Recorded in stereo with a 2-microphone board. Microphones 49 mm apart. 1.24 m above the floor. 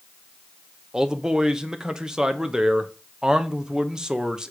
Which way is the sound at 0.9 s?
15° right (ahead or behind).